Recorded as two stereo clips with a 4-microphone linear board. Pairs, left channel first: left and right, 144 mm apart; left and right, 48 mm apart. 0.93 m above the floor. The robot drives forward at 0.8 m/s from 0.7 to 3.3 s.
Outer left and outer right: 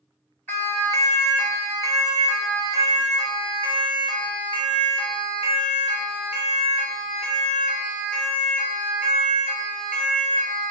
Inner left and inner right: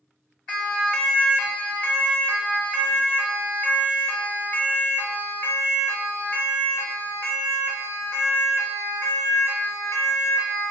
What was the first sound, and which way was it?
A siren, 15° left (ahead or behind).